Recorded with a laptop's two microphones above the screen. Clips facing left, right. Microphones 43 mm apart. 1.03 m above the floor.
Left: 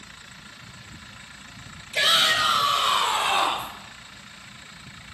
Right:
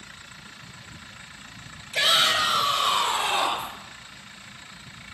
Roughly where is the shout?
Centre.